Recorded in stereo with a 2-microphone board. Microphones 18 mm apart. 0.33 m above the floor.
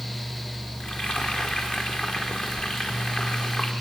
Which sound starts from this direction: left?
Frying, at 0.8 s.